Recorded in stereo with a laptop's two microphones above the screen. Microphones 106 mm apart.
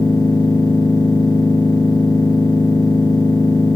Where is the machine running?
45° left (ahead or behind), 3.5 m.